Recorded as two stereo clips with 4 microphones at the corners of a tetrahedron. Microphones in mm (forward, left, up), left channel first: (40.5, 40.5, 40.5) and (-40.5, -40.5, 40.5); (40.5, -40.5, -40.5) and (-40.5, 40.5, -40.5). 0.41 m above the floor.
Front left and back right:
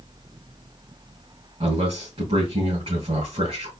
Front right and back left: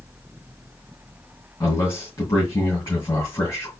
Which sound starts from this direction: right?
A man speaking, at 1.6 s.